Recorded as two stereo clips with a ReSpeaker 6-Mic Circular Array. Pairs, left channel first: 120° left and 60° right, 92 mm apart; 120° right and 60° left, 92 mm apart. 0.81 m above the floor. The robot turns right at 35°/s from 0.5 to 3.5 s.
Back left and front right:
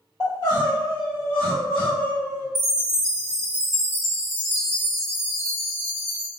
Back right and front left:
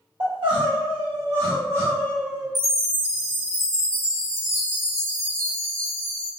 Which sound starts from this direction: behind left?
A chime, at 2.5 s.